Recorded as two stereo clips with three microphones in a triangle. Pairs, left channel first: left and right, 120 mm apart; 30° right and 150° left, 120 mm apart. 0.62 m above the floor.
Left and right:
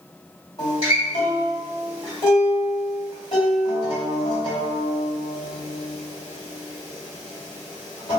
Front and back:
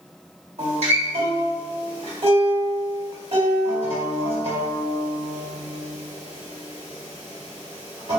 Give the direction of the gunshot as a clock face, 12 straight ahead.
I don't hear a gunshot.